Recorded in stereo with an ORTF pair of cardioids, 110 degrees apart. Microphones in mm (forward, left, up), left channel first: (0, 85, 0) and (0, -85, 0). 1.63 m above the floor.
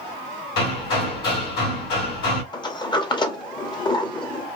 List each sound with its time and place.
0.6 s hammering: 70° left, 1.8 m
2.5 s a sliding door: 25° left, 0.8 m